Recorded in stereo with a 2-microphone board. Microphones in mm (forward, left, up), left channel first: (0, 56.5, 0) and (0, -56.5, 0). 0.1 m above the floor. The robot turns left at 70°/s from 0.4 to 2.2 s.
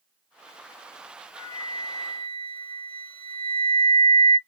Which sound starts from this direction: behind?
A flute, at 1.4 s.